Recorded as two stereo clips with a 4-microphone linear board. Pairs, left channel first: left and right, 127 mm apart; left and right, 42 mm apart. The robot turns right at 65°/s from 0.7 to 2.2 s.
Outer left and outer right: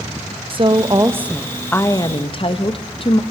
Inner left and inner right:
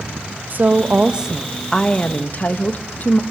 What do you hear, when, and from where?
0.5 s a woman speaking: 50° right, 1.5 m; by 3.2 s 50° left, 1.5 m